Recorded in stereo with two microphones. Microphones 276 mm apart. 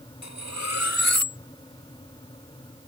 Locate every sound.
0.2 s cutlery clinking: 70° left (ahead or behind)